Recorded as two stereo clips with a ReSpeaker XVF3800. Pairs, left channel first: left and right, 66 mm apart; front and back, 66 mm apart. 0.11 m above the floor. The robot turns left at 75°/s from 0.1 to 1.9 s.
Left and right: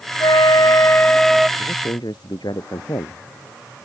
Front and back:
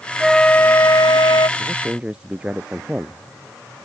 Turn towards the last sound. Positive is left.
turn(degrees=105)